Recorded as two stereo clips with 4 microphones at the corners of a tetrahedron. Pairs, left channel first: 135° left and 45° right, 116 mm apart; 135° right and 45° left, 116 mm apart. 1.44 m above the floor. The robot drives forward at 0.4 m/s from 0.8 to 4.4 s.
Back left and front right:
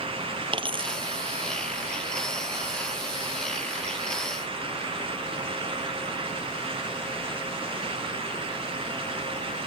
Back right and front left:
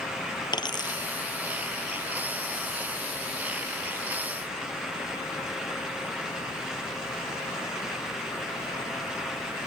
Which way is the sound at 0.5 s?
85° right.